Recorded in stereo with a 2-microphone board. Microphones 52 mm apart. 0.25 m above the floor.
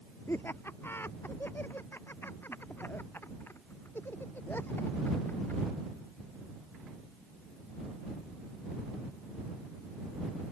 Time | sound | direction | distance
0.3 | laughter | 50° left (ahead or behind) | ?